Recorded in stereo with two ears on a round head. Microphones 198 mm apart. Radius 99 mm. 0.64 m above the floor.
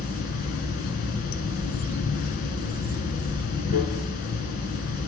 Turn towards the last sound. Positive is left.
turn(degrees=40)  # may be behind; listen again after turning